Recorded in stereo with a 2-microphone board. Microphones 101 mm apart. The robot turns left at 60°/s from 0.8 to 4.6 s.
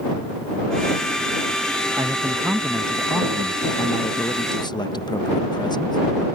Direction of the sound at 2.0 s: 135° right.